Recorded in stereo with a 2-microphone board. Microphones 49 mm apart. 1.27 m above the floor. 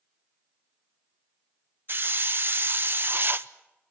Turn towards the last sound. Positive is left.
turn(degrees=-45)  # may be behind; listen again after turning